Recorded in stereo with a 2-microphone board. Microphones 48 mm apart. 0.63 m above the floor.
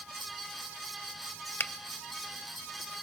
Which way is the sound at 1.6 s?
45° left (ahead or behind).